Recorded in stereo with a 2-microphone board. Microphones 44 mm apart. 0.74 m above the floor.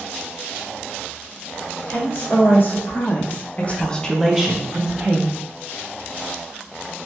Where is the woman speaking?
50° left (ahead or behind), 1.5 m; by 5.4 s 40° right (ahead or behind), 0.8 m.